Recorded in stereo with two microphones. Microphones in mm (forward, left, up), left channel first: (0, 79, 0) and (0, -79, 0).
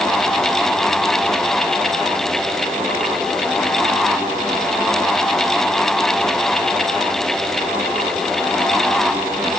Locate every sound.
Only background noise.